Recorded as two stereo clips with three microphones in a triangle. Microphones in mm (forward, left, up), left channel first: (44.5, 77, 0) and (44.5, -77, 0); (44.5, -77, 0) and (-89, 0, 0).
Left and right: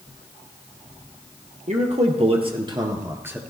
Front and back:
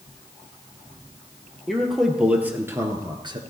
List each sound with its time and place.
1.7 s a man speaking: 120° right, 2.5 m; by 3.4 s 165° right, 1.7 m